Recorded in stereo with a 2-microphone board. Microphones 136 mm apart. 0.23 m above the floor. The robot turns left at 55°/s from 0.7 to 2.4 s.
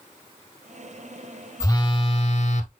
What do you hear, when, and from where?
1.6 s a phone buzzing: 155° left, 0.7 m; by 2.7 s 110° left, 0.7 m